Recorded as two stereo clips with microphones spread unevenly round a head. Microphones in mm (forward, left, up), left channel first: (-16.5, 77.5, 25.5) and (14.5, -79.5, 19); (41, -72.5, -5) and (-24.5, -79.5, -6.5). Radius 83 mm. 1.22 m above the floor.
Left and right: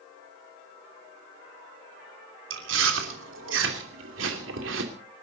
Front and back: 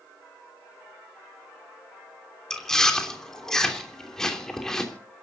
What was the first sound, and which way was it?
Chewing, 75° right.